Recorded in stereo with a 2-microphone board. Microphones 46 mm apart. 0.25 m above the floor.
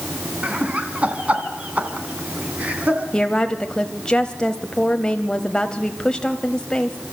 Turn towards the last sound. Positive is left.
turn(degrees=20)  # may be behind; listen again after turning